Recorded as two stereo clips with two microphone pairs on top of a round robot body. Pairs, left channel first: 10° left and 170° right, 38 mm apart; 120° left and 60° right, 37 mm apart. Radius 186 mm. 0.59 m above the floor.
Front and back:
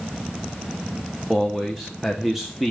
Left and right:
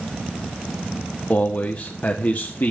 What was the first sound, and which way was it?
A man speaking, 110° left.